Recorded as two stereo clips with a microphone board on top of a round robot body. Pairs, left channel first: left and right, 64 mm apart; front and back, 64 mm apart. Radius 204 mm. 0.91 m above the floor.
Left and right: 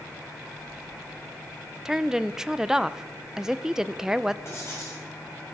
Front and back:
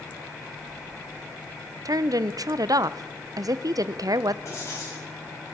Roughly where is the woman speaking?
Behind.